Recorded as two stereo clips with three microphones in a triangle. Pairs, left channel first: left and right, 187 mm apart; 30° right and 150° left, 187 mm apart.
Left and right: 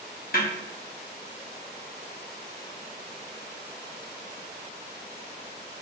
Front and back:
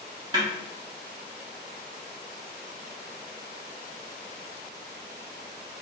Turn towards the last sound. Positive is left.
turn(degrees=90)